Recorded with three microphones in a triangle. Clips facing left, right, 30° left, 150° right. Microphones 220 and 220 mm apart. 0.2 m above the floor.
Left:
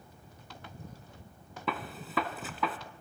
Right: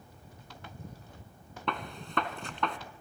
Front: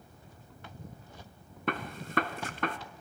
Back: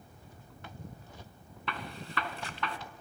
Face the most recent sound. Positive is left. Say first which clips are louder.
# even, front 6 dB
turn(degrees=5)